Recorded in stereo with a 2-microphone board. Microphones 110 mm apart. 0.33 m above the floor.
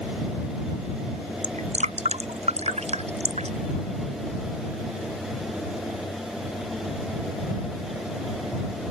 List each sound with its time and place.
1.4 s dripping: 80° right